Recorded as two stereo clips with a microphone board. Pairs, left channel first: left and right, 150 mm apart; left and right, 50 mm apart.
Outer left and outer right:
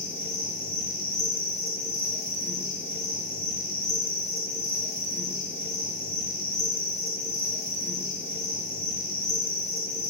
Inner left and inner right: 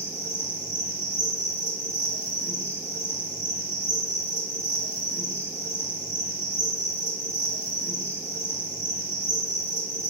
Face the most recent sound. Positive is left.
turn(degrees=-90)